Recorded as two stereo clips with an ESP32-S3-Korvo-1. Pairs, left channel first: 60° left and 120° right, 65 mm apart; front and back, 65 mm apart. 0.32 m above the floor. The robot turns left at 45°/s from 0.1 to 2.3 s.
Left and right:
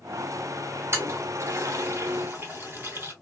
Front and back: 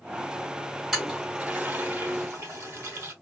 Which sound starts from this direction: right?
A toilet flushing, at 0.9 s.